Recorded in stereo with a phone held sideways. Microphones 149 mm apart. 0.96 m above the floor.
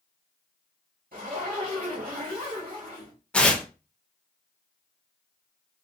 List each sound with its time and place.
1.1 s a zipper: 70° right (ahead or behind), 1.5 m
3.3 s tearing paper: 5° left (ahead or behind), 0.5 m